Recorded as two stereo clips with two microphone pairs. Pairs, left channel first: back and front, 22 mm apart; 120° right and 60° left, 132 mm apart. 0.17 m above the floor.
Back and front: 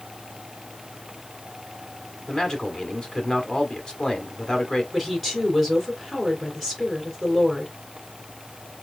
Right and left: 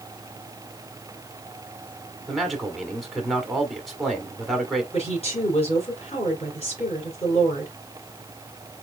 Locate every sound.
2.3 s a man speaking: 150° left, 1.6 m
4.9 s a woman speaking: 95° right, 3 m